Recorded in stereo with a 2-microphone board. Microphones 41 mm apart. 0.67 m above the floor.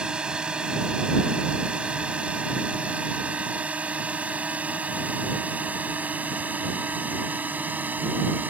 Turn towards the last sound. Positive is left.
turn(degrees=-50)  # may be behind; listen again after turning